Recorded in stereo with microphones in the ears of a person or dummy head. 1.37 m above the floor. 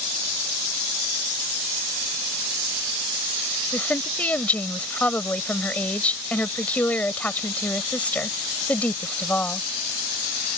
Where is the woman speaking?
10° left (ahead or behind).